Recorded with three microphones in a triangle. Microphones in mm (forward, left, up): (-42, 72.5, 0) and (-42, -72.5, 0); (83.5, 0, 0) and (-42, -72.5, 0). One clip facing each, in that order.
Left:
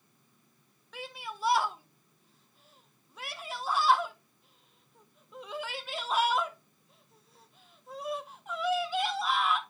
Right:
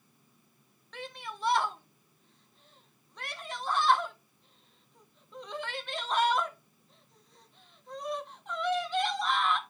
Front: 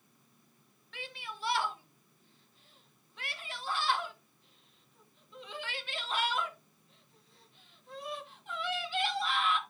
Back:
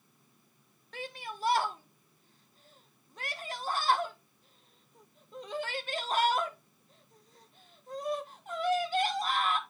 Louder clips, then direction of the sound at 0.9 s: Even, back 4 dB; 175° left.